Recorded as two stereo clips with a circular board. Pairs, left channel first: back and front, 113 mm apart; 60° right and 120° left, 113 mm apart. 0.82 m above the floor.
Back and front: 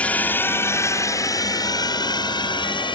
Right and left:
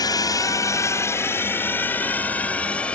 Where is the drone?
105° right; by 3.0 s 140° right.